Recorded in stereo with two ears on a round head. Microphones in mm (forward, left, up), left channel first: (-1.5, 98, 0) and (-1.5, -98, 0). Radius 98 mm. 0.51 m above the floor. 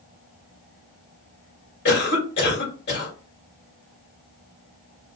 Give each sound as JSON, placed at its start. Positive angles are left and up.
{"t": 1.9, "sound": "a cough", "side_deg": 55, "distance_m": 2.5}